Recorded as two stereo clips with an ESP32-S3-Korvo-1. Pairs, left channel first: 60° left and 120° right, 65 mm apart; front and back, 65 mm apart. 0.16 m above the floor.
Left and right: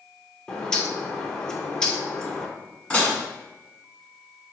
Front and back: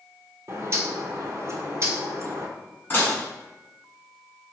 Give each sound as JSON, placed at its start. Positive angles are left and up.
{"t": 0.5, "sound": "a bird", "azimuth_deg": 140, "distance_m": 0.6}
{"t": 2.9, "sound": "dishes clattering", "azimuth_deg": 5, "distance_m": 1.1}